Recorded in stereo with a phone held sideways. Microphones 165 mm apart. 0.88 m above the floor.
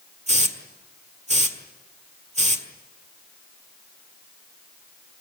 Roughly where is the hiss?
Right.